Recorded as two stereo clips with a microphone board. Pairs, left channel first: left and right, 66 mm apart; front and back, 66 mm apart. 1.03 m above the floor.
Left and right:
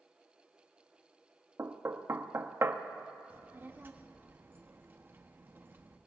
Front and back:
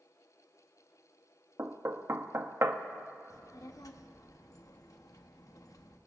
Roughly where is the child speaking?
Ahead right.